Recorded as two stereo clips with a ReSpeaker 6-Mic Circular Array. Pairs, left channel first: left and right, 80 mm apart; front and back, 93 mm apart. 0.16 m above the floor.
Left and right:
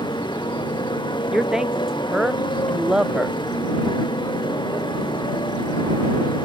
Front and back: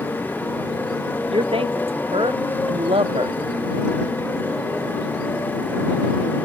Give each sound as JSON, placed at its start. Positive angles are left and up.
{"t": 0.0, "sound": "a motorcycle", "azimuth_deg": 70}
{"t": 1.3, "sound": "a man speaking", "azimuth_deg": -175}